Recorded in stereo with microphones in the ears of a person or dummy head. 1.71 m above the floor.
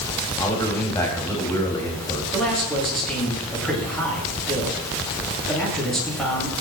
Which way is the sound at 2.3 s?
5° left (ahead or behind).